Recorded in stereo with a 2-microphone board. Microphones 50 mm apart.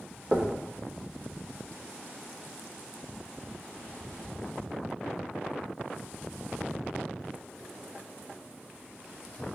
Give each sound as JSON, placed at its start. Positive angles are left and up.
{"t": 0.3, "sound": "knocking", "side_deg": -25, "distance_m": 0.6}